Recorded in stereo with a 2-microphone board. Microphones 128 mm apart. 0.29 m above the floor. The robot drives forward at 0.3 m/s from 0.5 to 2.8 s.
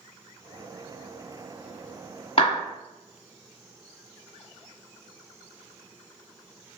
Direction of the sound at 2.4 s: 45° left (ahead or behind).